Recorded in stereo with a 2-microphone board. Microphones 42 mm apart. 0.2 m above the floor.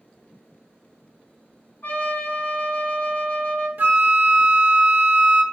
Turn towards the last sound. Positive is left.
turn(degrees=-50)  # may be behind; listen again after turning